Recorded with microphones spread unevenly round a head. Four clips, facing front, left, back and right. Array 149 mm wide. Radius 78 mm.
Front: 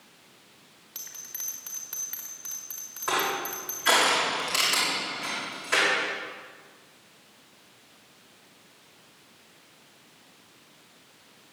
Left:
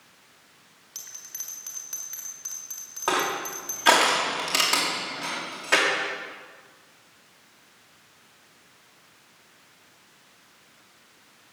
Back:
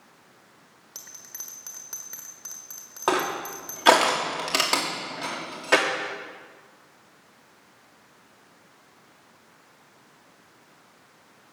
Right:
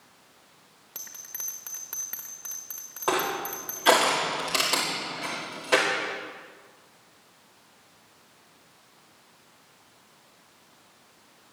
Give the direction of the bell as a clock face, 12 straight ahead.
4 o'clock.